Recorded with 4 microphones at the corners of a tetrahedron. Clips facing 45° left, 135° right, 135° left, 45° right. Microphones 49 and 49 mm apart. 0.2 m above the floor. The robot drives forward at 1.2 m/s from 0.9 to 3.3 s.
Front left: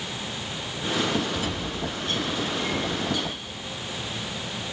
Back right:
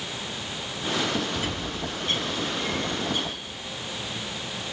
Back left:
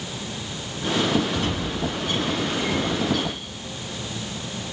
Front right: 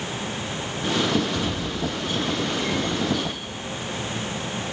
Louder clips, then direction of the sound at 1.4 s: Front left 1 dB, back left 1 dB; 175° left.